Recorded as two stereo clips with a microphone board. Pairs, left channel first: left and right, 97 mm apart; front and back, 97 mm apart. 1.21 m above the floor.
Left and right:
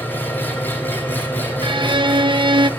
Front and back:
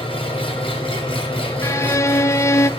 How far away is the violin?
About 0.7 m.